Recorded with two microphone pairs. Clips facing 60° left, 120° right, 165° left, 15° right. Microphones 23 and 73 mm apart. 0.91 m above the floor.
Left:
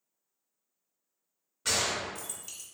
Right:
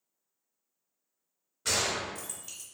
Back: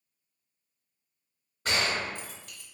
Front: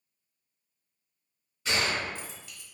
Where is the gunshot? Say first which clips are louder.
Even, even; 150° left, 0.9 m.